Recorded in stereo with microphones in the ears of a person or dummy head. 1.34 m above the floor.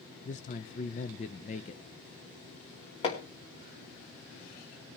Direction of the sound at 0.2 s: 35° left (ahead or behind).